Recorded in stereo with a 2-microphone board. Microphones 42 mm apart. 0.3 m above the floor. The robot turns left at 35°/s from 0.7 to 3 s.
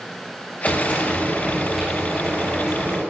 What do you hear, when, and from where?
0.7 s frying: 50° left, 4.5 m; by 3.0 s 30° right, 4.5 m